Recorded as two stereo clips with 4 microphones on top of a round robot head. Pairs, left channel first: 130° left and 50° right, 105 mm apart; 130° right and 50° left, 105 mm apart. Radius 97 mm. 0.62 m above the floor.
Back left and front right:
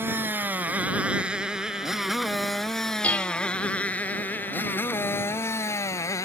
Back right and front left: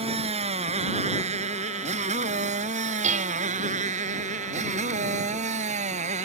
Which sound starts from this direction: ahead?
A motorcycle, at 0.0 s.